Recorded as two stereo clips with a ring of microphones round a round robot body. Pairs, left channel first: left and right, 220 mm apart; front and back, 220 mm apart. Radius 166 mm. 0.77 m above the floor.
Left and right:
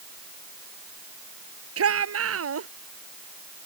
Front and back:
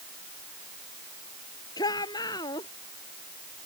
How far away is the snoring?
I don't hear snoring.